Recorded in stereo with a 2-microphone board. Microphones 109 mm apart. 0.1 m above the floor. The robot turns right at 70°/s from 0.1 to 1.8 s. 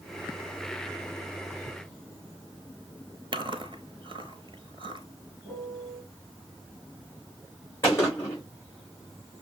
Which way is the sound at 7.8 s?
25° left (ahead or behind).